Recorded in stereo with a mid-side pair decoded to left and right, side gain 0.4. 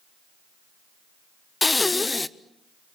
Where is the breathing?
25° left, 0.8 m.